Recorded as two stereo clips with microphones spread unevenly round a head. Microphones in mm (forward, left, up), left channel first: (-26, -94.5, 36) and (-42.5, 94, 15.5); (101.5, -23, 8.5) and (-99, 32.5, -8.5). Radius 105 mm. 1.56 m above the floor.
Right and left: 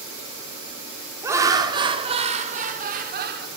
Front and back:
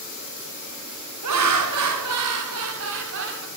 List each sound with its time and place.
1.2 s laughter: 170° left, 4 m; by 3.5 s 130° left, 4 m